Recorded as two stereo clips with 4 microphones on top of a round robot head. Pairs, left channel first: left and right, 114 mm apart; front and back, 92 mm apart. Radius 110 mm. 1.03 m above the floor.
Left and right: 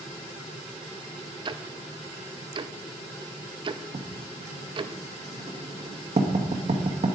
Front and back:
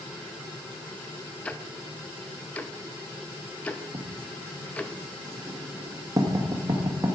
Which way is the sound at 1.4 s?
70° right.